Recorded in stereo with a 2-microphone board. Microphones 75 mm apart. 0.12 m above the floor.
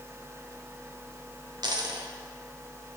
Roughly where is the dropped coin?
Right.